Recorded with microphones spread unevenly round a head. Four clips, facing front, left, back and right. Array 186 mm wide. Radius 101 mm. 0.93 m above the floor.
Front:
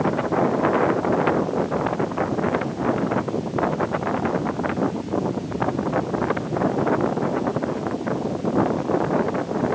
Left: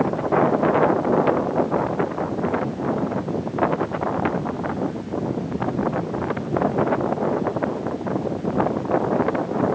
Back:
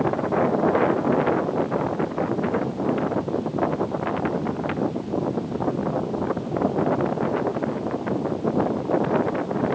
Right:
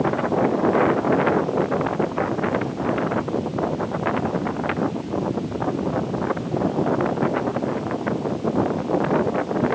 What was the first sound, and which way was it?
Only background noise.